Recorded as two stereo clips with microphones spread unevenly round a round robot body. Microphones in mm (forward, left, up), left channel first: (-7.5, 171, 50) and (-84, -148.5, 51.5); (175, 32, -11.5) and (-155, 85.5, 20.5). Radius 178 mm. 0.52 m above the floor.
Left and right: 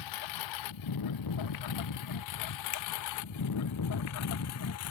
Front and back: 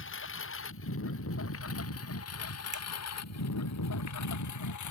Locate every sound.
0.0 s a lawn mower: 45° left; by 4.9 s 25° left
2.7 s a finger snap: 90° left